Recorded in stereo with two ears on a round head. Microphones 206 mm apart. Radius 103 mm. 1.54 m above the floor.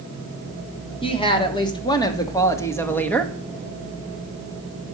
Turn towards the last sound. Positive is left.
turn(degrees=5)  # may be behind; listen again after turning